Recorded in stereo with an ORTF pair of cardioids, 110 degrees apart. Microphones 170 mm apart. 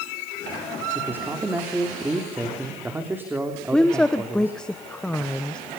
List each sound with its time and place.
0.9 s a man speaking: 10° right, 3 m
3.7 s a woman speaking: 5° left, 1.0 m